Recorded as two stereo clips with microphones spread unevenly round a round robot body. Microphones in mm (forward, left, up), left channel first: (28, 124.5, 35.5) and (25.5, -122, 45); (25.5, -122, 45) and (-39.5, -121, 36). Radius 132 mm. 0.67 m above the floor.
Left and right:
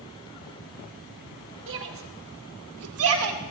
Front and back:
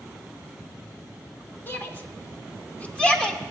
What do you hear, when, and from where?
1.7 s a shout: 60° right, 2.5 m; by 3.4 s 80° right, 2.5 m